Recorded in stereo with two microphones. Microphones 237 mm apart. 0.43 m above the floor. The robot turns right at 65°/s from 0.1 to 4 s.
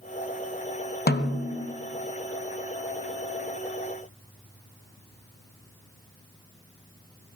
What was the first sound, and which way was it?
A snare drum, 50° left.